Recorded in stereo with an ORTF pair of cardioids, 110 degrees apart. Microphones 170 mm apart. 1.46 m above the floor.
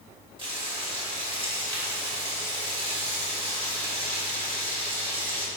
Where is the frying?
30° right, 2.5 m.